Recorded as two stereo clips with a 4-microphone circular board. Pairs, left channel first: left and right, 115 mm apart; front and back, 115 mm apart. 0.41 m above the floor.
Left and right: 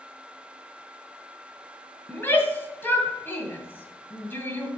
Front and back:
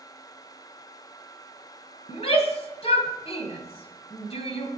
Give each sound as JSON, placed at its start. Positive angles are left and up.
{"t": 2.1, "sound": "a shout", "azimuth_deg": 20, "distance_m": 2.0}